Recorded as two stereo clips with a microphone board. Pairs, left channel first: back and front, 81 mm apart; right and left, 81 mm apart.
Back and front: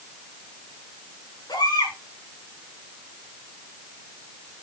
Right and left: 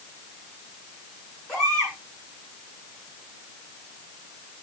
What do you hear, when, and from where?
1.5 s a baby crying: 170° right, 6 m